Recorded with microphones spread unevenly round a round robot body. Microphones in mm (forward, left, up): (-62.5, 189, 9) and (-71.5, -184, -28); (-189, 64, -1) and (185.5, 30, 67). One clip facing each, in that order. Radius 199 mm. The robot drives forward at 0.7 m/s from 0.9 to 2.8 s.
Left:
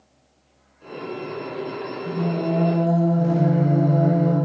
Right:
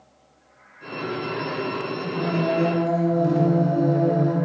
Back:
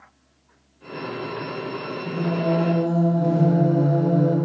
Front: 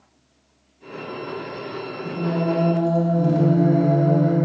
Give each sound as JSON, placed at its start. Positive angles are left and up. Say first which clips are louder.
{"t": 2.0, "sound": "singing", "louder": "left 1 dB, front 1 dB", "azimuth_deg": -40, "distance_m": 1.3}